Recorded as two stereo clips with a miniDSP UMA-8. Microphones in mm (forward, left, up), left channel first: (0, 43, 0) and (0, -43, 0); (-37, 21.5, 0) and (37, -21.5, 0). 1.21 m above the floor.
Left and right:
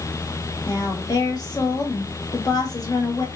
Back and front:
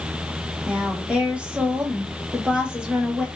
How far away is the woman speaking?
About 1.1 m.